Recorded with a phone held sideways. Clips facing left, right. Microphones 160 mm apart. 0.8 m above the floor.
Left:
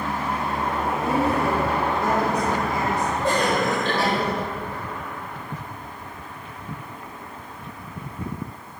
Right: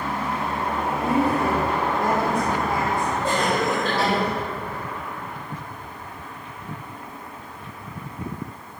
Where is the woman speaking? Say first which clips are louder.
Right 1 dB; 55° right (ahead or behind), 6 m.